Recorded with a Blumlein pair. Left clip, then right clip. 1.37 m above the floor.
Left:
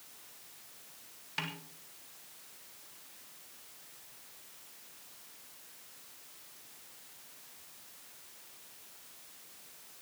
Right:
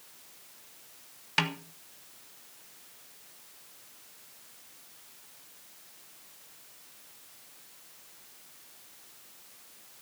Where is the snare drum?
30° right, 1.6 m.